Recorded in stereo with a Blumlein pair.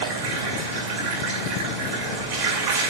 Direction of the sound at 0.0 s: 40° right.